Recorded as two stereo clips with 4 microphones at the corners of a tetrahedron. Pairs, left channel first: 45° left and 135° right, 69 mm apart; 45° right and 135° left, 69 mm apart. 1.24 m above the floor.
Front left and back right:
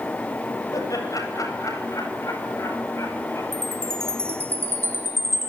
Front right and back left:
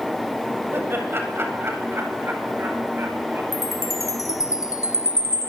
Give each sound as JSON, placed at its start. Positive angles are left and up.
{"t": 0.7, "sound": "laughter", "azimuth_deg": 80, "distance_m": 8.0}
{"t": 3.5, "sound": "a chime", "azimuth_deg": -80, "distance_m": 5.5}